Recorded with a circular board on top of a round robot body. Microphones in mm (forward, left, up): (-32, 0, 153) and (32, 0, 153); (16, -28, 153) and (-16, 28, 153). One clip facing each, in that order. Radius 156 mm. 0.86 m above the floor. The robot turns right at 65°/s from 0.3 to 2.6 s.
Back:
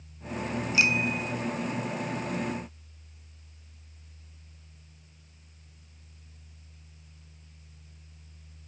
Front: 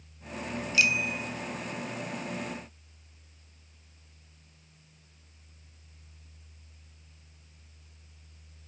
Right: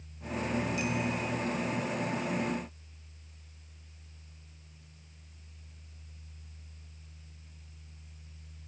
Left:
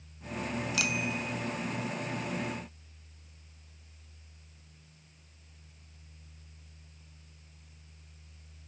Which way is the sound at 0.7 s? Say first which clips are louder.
Back 1 dB, right 1 dB; 115° left.